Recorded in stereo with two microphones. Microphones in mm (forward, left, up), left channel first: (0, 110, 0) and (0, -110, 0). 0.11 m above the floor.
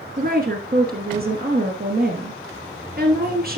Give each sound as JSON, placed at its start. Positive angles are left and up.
{"t": 0.2, "sound": "a woman speaking", "side_deg": -45, "distance_m": 1.6}